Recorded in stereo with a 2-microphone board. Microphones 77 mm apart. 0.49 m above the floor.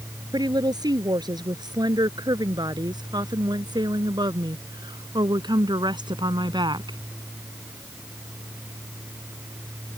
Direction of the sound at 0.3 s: 60° right (ahead or behind).